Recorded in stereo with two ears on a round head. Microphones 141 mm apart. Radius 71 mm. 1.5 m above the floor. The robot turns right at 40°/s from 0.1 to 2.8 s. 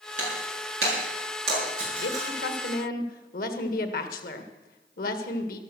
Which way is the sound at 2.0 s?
80° left.